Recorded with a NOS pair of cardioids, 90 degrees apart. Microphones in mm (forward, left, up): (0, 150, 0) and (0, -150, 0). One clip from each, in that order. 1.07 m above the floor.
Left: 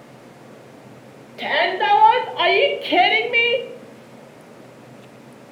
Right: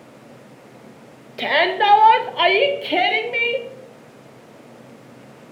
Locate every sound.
1.4 s a shout: 30° right, 1.4 m; by 3.7 s 30° left, 0.9 m